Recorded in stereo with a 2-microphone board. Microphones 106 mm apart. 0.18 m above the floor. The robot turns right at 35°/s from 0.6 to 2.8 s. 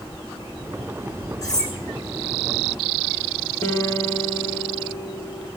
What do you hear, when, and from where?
1.4 s cutlery clinking: 30° left (ahead or behind), 5 m; by 1.7 s 40° left (ahead or behind), 5 m
3.6 s a guitar: 30° left (ahead or behind), 3.5 m